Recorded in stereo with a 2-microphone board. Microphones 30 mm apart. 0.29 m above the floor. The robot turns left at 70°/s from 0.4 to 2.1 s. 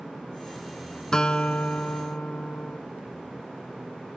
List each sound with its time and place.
1.1 s a guitar: 160° left; by 2.8 s 90° left